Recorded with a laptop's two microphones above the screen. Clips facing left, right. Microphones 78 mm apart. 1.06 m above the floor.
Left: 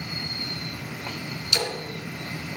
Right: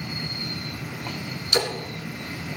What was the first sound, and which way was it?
A splash, 45° right (ahead or behind).